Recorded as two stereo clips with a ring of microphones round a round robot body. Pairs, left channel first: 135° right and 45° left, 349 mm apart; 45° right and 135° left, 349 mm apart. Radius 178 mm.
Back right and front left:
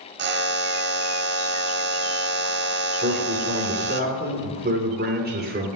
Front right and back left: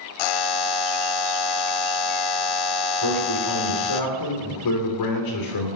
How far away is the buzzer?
About 1.1 m.